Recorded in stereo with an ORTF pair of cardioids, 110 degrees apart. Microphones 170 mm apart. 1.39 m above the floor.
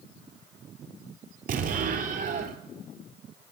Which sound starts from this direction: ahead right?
An explosion, at 1.5 s.